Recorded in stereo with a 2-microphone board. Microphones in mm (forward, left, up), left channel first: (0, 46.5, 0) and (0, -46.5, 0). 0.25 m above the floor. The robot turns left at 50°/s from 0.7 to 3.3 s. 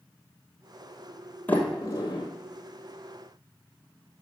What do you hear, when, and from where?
1.5 s a sliding door: 20° left (ahead or behind), 1.9 m; by 2.2 s 55° left (ahead or behind), 1.9 m